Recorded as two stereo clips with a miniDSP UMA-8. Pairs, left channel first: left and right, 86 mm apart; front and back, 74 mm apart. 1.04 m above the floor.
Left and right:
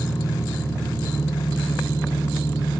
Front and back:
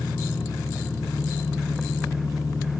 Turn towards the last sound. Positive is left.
turn(degrees=40)